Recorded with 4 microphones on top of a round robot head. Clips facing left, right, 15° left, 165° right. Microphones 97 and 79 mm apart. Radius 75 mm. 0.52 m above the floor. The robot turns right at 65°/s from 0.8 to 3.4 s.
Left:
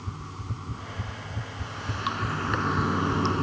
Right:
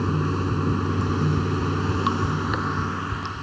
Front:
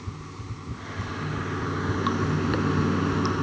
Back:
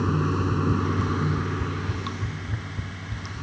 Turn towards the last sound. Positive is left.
turn(degrees=45)